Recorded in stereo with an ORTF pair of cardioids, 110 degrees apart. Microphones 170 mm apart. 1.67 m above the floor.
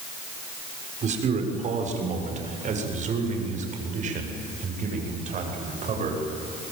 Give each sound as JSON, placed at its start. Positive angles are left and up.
{"t": 1.0, "sound": "a man speaking", "azimuth_deg": -45, "distance_m": 6.5}